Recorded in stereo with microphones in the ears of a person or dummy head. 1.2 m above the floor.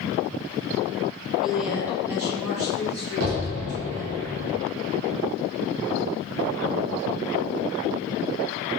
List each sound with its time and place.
1.4 s a woman speaking: centre (ahead or behind), 0.6 m; by 4.2 s 15° right (ahead or behind), 1.5 m
3.2 s an explosion: 85° right, 0.8 m